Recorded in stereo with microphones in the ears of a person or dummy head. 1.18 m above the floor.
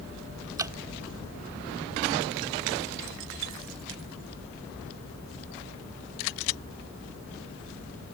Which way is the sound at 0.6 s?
15° right (ahead or behind).